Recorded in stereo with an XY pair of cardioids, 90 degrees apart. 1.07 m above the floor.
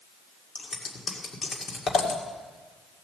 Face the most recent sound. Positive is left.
turn(degrees=55)